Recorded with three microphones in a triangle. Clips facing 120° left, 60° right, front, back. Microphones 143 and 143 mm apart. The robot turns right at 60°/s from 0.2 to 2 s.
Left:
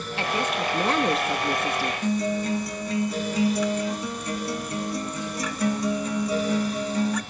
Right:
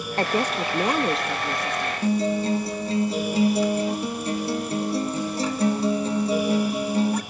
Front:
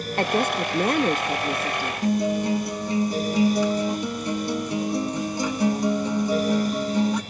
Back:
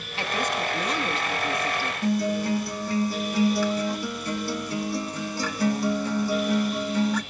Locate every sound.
0.2 s a woman speaking: 25° right, 1.0 m; by 1.9 s 75° left, 1.0 m
2.0 s a guitar: 50° right, 1.1 m